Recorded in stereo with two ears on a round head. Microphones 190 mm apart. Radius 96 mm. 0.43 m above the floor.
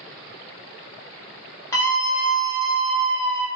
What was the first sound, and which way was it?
A scream, 15° left (ahead or behind).